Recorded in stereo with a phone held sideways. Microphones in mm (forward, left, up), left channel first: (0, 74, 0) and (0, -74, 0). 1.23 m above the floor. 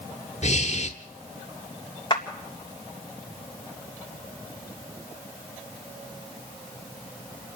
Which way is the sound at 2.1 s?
30° left (ahead or behind).